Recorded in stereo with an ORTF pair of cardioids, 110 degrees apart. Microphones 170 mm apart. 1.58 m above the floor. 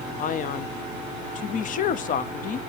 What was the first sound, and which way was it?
A man speaking, 55° left.